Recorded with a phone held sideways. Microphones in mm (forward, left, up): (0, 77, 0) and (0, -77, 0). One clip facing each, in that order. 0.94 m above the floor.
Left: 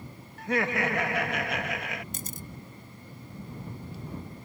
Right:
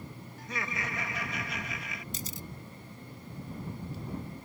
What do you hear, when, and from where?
0.4 s laughter: 65° left (ahead or behind)
2.1 s a camera shutter: 50° left (ahead or behind)